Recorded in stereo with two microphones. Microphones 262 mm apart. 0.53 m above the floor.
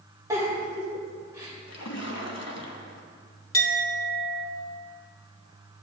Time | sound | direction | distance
0.3 | a giggle | 10° right (ahead or behind) | 2.5 m
1.7 | a splash | 65° left (ahead or behind) | 1.0 m
3.5 | a clink | 50° left (ahead or behind) | 1.1 m